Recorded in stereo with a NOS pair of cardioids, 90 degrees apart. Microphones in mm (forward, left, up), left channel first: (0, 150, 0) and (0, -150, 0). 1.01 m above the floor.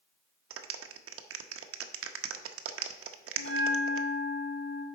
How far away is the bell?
About 3 m.